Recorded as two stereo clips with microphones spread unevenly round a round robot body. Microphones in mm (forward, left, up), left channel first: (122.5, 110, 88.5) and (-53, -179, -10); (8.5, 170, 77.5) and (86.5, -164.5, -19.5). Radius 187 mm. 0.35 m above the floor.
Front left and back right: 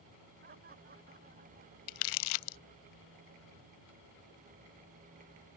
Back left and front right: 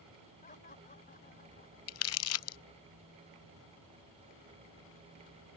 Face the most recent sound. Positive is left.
turn(degrees=50)